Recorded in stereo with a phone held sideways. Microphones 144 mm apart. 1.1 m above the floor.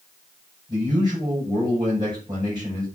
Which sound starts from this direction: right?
A man speaking, at 0.7 s.